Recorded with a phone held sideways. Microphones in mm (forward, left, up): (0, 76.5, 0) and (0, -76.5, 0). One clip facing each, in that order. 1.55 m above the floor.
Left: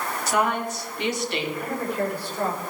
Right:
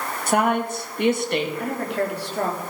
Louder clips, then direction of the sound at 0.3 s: Right 4 dB; 50° right (ahead or behind).